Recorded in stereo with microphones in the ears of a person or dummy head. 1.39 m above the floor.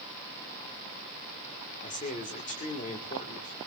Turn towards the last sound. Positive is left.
turn(degrees=35)  # may be behind; listen again after turning